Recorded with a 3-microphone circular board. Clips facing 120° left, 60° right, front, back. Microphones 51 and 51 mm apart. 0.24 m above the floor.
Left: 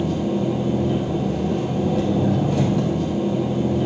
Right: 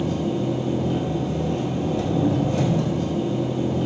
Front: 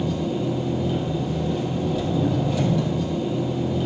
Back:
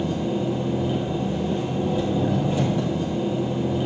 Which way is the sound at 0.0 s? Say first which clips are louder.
Left 2 dB, even; 115° left.